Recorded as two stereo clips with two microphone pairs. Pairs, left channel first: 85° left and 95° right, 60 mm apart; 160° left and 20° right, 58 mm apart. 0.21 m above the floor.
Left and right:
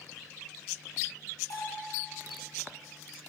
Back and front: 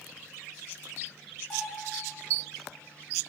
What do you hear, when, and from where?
1.5 s a bell: 80° left, 5.5 m